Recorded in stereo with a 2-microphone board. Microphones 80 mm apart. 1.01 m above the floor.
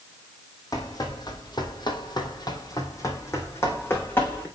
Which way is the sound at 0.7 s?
50° left (ahead or behind).